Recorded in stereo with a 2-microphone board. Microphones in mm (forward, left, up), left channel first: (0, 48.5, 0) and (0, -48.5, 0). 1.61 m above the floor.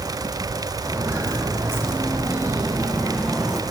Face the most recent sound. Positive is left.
turn(degrees=0)  # may be behind; listen again after turning